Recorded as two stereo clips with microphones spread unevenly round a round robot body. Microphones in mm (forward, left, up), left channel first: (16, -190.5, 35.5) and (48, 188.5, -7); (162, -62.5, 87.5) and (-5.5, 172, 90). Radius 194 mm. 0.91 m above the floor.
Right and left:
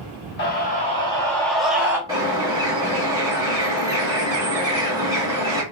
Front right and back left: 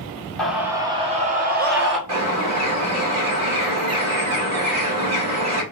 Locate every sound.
0.4 s a scream: 140° right, 1.0 m; by 2.0 s 160° left, 1.3 m
2.1 s a bird: 165° left, 1.6 m